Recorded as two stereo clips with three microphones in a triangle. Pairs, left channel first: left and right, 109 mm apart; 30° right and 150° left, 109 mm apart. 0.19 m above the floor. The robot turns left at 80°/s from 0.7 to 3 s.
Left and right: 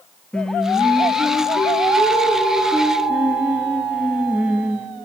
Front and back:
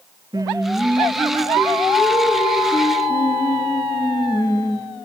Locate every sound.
0.3 s singing: 165° left, 0.5 m; by 4.9 s 20° right, 0.5 m